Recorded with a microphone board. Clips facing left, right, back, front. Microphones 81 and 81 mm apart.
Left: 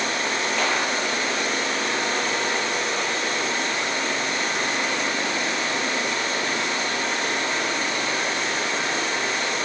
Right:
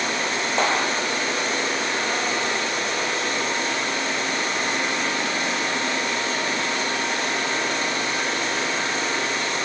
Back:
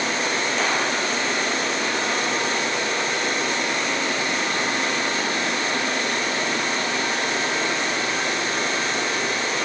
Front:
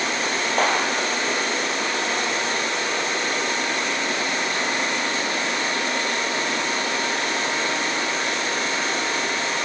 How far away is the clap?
About 4 m.